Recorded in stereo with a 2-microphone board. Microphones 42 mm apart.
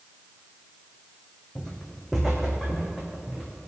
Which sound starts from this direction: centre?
Footsteps, at 1.6 s.